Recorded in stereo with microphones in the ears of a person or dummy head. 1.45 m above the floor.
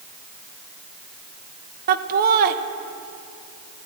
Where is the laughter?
50° right (ahead or behind), 0.9 m.